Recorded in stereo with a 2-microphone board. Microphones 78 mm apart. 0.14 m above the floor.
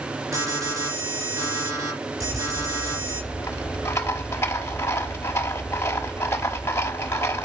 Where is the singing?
No singing in this recording.